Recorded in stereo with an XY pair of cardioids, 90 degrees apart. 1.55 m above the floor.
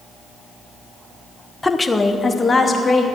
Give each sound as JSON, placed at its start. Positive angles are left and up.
{"t": 1.6, "sound": "a woman speaking", "azimuth_deg": 15, "distance_m": 1.0}